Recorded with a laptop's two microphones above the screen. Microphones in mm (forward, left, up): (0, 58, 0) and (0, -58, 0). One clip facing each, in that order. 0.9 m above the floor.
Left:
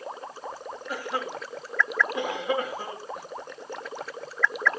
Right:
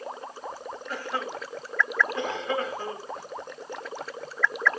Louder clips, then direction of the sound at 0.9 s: Left 1 dB; 10° left (ahead or behind).